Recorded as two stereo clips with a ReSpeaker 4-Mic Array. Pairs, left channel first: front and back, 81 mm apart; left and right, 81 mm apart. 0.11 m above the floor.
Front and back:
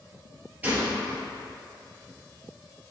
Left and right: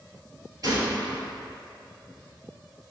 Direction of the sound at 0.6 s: 115° right.